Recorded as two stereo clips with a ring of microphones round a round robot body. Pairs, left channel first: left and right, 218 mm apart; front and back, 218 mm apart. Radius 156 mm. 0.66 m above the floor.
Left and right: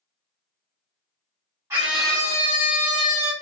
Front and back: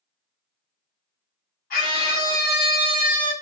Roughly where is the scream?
Ahead.